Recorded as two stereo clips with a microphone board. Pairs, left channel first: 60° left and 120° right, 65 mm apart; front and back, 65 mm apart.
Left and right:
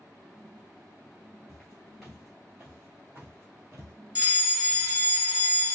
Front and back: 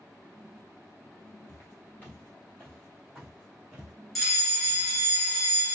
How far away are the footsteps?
About 1.5 m.